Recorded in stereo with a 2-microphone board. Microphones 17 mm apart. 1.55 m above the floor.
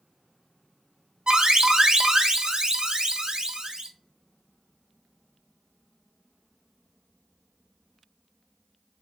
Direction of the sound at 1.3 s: 55° right (ahead or behind).